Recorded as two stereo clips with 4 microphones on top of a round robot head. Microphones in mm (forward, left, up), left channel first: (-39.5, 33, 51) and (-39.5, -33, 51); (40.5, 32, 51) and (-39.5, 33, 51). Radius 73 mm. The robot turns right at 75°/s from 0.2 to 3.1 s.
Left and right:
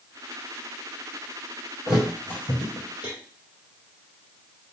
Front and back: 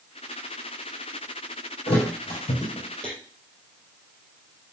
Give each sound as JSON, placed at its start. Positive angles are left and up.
{"t": 1.9, "sound": "a thud", "azimuth_deg": -5, "distance_m": 4.0}